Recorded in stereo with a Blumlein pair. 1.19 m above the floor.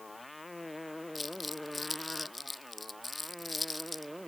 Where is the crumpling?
10° left.